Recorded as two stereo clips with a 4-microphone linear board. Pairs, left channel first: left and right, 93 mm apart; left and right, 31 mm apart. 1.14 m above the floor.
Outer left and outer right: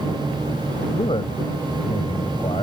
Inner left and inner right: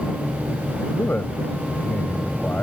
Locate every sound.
0.9 s a man speaking: 65° left (ahead or behind)